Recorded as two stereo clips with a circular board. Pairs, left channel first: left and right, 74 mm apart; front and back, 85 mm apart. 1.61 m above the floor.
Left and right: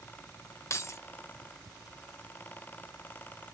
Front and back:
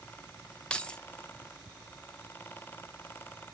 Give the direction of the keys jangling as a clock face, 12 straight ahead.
9 o'clock.